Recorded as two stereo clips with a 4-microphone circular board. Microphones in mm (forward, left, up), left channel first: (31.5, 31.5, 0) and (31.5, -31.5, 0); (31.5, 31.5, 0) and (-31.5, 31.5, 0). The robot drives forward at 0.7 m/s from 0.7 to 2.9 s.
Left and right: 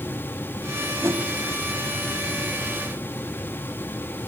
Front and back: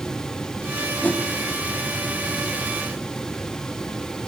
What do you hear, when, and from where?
1.0 s a whoosh: 60° right, 1.4 m; by 1.2 s 65° right, 1.3 m